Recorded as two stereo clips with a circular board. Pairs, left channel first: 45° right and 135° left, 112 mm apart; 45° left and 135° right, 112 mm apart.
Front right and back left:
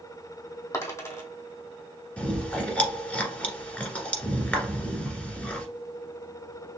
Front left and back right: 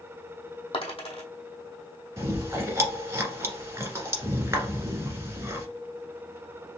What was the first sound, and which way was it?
A dropped coin, 15° left.